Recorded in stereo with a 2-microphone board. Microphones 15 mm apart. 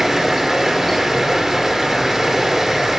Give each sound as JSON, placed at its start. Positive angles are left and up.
{"t": 0.0, "sound": "running water", "side_deg": -15, "distance_m": 3.0}